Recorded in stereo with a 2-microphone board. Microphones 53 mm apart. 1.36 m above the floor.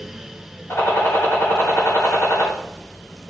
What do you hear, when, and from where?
0.7 s a gunshot: 55° left (ahead or behind), 7.5 m